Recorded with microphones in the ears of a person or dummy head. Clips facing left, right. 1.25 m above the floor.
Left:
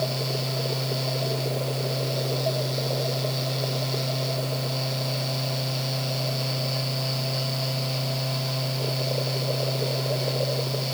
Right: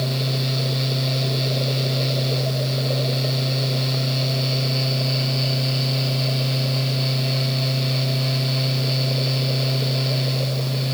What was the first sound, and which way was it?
Only background noise.